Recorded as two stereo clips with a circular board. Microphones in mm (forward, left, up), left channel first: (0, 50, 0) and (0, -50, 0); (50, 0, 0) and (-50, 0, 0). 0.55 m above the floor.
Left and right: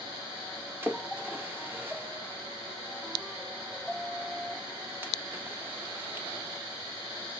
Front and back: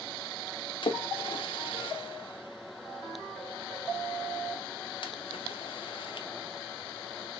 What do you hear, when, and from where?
0.8 s a splash: 20° right, 0.6 m